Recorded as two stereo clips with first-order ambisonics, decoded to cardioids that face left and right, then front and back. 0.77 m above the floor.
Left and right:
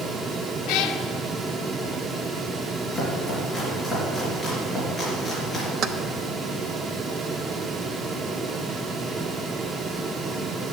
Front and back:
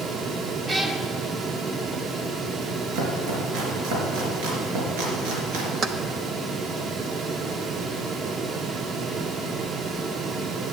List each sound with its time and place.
0.7 s a cat meowing: 110° left, 0.9 m
2.9 s chopping: straight behind, 2.5 m
5.8 s keys jangling: 130° right, 0.5 m